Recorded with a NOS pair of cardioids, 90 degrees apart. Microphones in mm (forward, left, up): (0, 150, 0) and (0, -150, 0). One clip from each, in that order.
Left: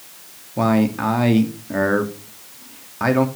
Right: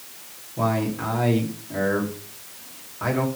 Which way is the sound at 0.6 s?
60° left.